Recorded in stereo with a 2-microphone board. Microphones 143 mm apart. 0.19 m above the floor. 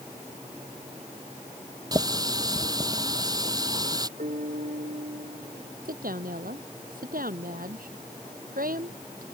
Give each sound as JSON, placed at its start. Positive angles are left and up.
{"t": 1.9, "sound": "a running tap", "side_deg": -25}
{"t": 4.2, "sound": "a piano", "side_deg": -80}
{"t": 5.8, "sound": "a woman speaking", "side_deg": -80}